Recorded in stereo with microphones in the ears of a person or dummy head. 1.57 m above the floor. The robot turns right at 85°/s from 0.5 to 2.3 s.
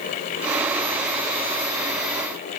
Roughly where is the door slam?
No door slam in this recording.